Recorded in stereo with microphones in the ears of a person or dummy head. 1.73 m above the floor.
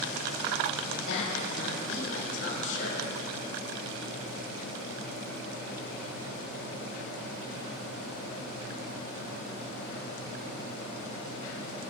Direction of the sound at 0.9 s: 70° left (ahead or behind).